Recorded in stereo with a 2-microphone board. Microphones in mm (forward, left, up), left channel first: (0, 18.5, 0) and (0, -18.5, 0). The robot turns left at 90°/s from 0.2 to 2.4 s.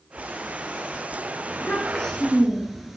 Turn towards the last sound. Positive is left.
turn(degrees=-10)